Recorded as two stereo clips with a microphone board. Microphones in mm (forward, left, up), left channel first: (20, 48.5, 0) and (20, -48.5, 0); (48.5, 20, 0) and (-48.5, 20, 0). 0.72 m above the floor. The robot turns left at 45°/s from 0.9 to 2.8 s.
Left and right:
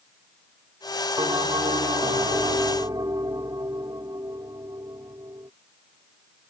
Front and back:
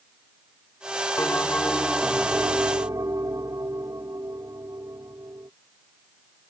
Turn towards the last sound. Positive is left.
turn(degrees=-130)